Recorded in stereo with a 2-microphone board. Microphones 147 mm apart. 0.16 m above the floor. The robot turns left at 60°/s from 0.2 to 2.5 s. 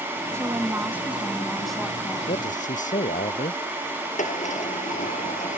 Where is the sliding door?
65° left (ahead or behind).